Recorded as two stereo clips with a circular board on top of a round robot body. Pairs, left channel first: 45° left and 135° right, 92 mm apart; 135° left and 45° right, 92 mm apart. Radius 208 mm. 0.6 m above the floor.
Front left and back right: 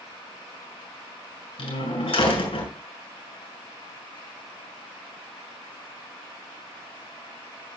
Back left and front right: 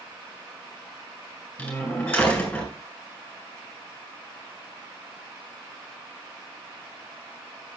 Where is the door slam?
60° left, 3.5 m.